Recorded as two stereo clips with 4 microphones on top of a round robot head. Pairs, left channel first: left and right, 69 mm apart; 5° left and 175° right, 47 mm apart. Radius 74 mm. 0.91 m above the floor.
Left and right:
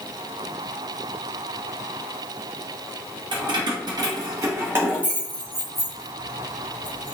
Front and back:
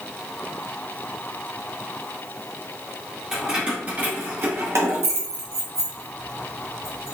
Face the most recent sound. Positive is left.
turn(degrees=160)